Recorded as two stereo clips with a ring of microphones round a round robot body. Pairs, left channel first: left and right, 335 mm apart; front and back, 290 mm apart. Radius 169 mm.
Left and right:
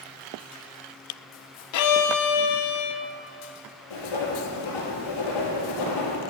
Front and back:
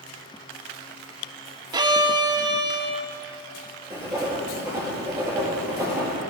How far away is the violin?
About 0.6 m.